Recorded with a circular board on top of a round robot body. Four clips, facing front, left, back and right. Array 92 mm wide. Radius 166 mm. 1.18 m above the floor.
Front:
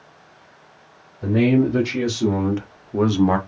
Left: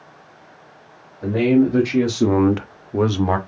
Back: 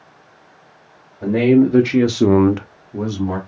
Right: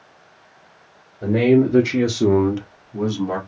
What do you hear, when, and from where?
1.2 s a man speaking: 155° right, 1.9 m; by 3.4 s 55° left, 1.2 m